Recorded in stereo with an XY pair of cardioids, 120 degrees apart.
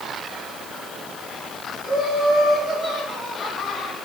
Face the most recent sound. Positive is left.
turn(degrees=30)